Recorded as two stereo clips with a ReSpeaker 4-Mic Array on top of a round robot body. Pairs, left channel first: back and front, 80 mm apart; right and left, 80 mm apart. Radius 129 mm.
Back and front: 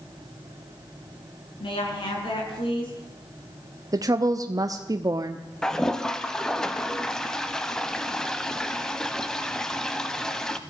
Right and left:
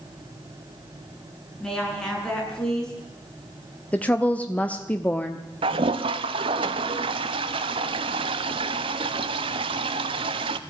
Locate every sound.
1.6 s a woman speaking: 170° right, 8.5 m
3.9 s a woman speaking: 20° right, 1.2 m
5.6 s a toilet flushing: 100° left, 0.5 m